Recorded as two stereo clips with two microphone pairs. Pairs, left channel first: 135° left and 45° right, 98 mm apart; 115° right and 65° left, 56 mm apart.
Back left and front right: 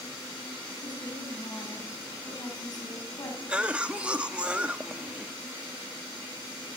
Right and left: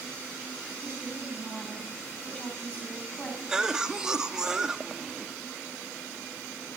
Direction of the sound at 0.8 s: 175° left.